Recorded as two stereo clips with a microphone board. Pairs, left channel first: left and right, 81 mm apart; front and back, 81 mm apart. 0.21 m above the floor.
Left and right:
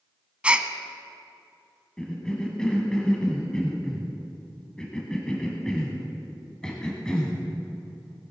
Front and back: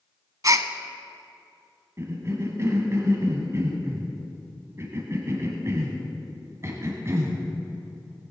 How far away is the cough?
About 1.2 m.